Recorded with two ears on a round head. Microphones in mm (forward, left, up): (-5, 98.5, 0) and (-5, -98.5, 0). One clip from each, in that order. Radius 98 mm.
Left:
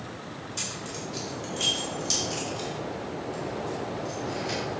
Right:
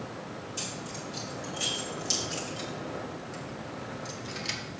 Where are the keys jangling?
10° left (ahead or behind), 3.5 m; by 4.6 s 60° right (ahead or behind), 1.8 m.